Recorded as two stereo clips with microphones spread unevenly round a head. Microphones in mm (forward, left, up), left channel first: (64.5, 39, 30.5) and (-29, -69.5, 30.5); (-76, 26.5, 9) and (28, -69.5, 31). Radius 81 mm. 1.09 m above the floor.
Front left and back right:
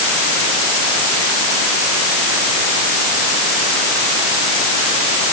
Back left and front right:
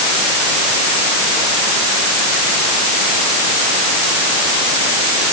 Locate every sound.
Only background noise.